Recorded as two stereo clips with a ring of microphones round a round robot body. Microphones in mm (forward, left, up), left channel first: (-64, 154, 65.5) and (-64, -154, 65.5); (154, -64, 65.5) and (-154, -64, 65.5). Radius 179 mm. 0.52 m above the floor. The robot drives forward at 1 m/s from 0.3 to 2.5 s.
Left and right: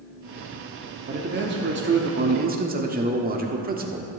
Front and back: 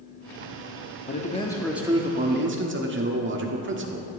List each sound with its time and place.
1.1 s a man speaking: 45° right, 1.3 m; by 4.1 s 145° right, 1.4 m